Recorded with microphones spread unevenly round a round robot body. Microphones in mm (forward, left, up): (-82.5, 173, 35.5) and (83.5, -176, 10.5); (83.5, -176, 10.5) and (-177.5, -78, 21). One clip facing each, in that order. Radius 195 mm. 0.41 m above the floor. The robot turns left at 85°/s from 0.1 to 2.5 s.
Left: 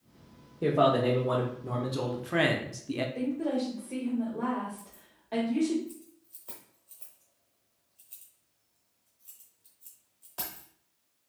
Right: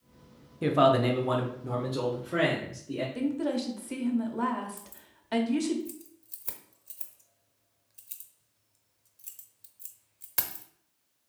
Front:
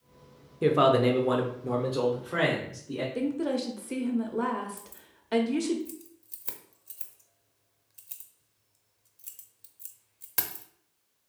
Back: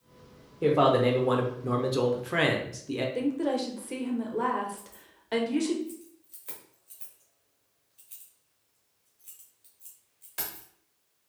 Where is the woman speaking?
95° right, 1.2 m.